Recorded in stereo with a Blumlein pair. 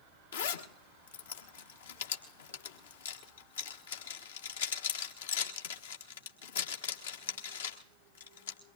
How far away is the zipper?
About 1.2 m.